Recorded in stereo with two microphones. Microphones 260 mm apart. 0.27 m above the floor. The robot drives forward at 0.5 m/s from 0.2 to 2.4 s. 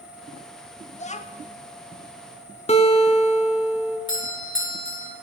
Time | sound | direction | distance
0.9 | a child speaking | 25° left (ahead or behind) | 0.7 m
2.7 | a guitar | 25° left (ahead or behind) | 1.1 m
4.1 | a doorbell | 50° left (ahead or behind) | 2.0 m